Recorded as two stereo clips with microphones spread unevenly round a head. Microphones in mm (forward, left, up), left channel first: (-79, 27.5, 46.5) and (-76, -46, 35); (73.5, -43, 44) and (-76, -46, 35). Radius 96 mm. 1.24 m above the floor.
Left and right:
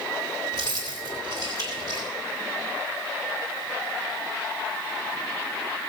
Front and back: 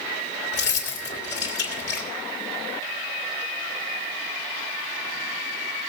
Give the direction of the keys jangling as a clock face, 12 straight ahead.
11 o'clock.